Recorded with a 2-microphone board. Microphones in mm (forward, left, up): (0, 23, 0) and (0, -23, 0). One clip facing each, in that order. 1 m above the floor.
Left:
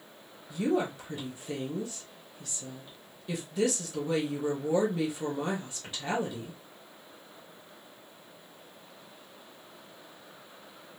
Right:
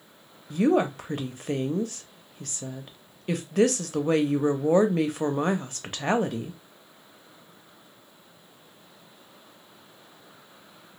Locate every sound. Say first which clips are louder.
0.5 s a woman speaking: right 7 dB; 60° right (ahead or behind), 0.7 m